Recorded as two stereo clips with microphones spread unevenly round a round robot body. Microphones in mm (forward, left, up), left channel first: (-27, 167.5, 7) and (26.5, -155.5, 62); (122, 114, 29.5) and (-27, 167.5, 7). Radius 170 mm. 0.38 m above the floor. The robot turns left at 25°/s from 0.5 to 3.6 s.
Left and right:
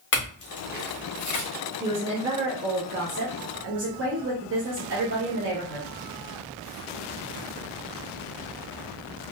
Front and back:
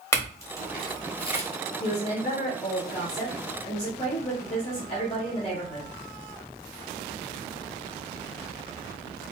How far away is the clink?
About 1.5 m.